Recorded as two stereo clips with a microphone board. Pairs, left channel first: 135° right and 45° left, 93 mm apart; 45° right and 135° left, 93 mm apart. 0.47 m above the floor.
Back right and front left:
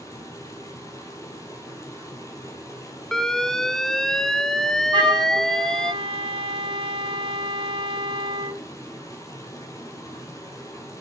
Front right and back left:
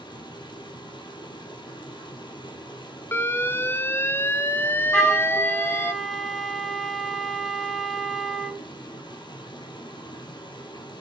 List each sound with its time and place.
0.0 s running water: 80° right, 3 m
3.1 s an alarm: 55° right, 0.7 m
4.9 s a flute: 45° left, 1.8 m